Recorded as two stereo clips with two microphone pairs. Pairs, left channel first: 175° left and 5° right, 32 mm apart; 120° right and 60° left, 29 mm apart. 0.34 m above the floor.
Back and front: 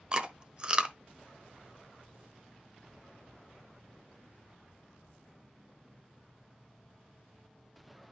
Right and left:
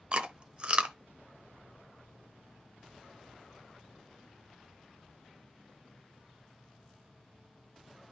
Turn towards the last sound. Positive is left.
turn(degrees=35)